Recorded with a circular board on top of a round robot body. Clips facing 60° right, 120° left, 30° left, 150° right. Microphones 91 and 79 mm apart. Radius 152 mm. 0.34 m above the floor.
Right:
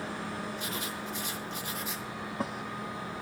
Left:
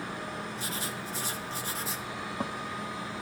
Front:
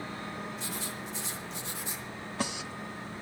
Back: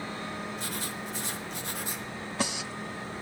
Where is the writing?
175° left, 1.8 m.